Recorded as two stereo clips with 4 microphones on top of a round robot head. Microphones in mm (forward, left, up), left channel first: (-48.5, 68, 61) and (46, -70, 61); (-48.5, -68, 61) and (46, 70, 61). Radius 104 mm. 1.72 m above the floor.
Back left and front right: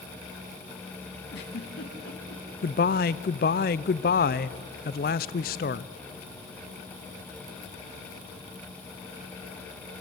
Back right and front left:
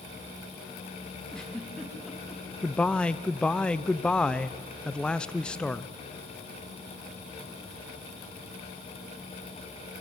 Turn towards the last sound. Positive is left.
turn(degrees=150)